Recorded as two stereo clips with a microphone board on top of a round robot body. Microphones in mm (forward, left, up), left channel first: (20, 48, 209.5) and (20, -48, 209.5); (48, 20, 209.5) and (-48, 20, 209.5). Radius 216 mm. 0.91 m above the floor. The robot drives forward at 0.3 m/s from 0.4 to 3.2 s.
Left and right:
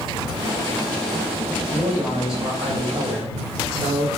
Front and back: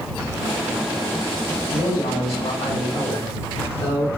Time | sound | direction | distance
1.7 | a man speaking | 55° right | 4.5 m